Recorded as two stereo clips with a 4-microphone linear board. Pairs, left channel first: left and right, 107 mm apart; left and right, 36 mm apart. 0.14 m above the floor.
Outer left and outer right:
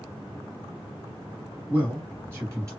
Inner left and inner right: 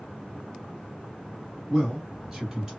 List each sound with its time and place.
1.7 s a man speaking: 15° right (ahead or behind), 1.3 m; by 2.7 s 30° right (ahead or behind), 1.6 m